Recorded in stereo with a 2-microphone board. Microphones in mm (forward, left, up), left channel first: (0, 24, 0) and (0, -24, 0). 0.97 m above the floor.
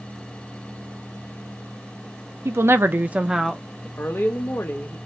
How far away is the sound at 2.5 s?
About 0.7 m.